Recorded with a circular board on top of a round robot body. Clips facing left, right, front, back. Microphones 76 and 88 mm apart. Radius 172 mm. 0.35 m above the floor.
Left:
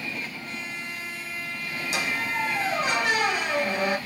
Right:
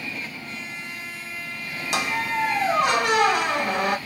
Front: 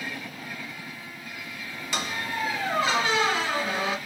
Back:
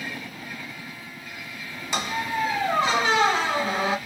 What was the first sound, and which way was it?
A squeak, 110° right.